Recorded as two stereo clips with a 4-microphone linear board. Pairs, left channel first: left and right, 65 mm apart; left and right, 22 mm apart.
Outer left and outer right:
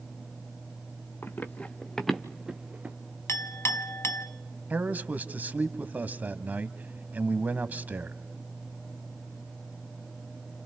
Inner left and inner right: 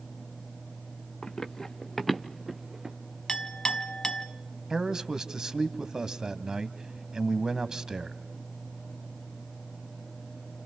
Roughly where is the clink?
Left.